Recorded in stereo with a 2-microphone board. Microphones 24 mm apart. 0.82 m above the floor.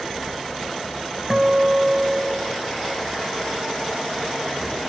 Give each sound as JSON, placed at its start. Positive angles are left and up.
{"t": 1.3, "sound": "a guitar", "side_deg": -30}